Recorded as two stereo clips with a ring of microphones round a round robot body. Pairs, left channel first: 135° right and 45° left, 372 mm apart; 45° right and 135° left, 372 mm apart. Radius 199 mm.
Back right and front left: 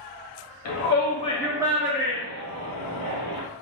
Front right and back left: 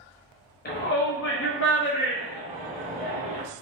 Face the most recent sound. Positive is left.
turn(degrees=30)